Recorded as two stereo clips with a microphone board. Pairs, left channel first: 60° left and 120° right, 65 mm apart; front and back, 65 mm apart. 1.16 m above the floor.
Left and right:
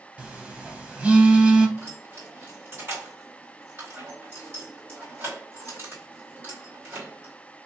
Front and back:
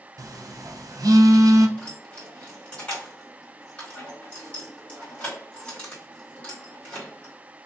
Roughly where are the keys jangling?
Right.